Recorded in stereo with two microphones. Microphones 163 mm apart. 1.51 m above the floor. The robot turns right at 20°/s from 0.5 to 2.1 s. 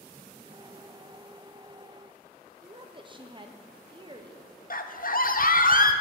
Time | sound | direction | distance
2.6 | a woman speaking | 30° right (ahead or behind) | 0.8 m
4.7 | a scream | 60° left (ahead or behind) | 0.7 m